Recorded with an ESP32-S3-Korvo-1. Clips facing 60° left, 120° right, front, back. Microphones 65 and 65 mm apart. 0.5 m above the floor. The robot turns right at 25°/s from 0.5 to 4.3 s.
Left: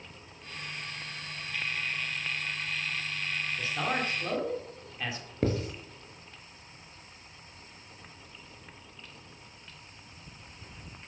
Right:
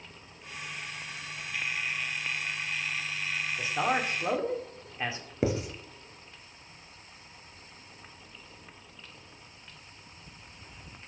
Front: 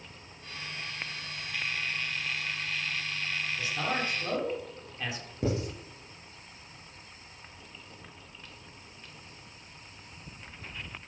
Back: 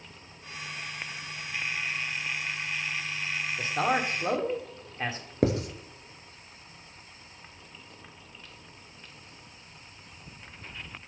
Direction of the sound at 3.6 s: 175° left.